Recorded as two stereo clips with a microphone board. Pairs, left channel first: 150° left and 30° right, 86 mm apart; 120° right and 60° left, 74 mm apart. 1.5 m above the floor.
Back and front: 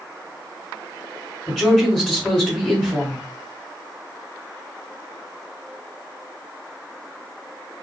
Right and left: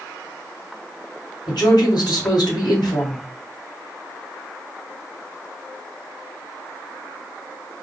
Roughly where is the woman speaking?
Behind right.